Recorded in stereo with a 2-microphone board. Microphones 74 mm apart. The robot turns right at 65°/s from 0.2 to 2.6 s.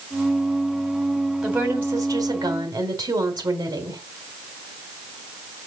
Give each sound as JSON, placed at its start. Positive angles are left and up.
{"t": 1.4, "sound": "a woman speaking", "azimuth_deg": -170, "distance_m": 3.5}